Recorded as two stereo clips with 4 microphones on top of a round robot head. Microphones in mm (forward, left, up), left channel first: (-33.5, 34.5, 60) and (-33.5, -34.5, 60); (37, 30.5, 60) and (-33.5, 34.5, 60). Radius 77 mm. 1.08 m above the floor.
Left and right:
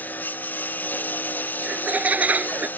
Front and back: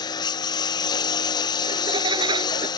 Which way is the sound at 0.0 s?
20° left.